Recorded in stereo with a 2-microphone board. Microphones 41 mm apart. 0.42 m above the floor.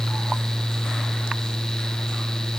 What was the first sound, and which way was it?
Only background noise.